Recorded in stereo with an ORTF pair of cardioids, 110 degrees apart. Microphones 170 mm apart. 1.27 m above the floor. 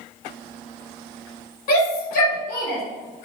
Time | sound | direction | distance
1.7 | a shout | 65° left | 1.9 m